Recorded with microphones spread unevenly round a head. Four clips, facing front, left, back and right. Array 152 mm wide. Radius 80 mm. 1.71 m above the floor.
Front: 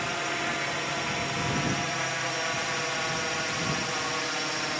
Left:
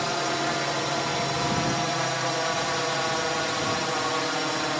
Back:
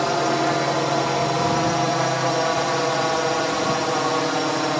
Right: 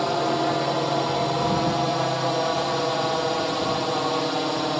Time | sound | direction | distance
0.0 | a drone | 150° right | ?